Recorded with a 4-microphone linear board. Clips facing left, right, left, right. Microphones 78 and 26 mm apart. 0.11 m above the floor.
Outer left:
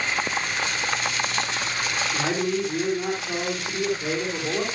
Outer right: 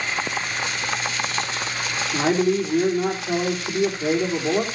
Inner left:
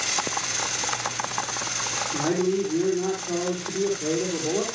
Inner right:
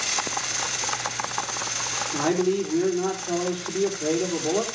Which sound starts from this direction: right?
A man speaking, at 2.1 s.